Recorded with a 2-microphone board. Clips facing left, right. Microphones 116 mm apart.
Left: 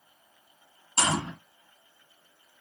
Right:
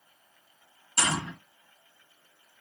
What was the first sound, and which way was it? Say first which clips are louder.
A gunshot: left 2 dB; 30° left (ahead or behind).